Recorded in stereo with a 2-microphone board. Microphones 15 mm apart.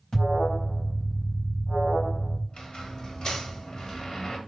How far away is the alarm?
About 4 m.